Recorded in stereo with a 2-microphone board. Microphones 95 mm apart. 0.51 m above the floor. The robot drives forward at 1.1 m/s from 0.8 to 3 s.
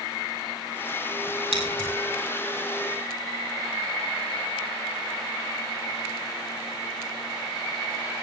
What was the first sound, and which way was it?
Scissors, 65° left (ahead or behind).